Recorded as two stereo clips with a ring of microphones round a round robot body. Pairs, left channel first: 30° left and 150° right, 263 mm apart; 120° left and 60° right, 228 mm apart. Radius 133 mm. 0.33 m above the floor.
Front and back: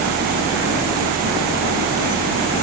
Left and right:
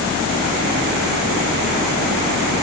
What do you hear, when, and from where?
Only background noise.